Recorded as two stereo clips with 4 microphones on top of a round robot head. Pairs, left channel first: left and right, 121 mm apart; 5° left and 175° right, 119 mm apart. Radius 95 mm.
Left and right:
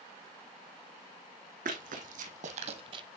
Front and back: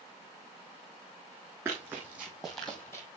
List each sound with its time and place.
1.6 s running footsteps: 95° right, 3 m; by 3.1 s 55° right, 1.3 m